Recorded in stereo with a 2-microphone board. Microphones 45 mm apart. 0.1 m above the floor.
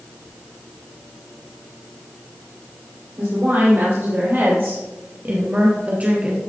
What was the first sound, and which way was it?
A woman speaking, 65° right (ahead or behind).